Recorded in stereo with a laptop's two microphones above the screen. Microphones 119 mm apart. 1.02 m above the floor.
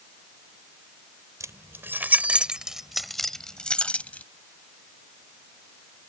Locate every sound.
1.4 s keys jangling: 25° right (ahead or behind); by 4.2 s 15° left (ahead or behind)